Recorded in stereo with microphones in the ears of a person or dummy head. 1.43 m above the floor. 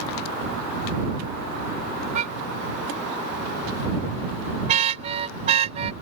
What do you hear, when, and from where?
2.1 s a car horn: 35° right (ahead or behind); by 5.9 s 30° right (ahead or behind)